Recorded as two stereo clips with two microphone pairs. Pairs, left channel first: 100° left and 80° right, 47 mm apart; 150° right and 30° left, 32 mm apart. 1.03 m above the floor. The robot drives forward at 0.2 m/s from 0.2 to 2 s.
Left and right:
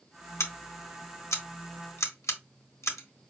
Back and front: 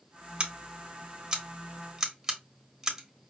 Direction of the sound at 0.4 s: 90° left.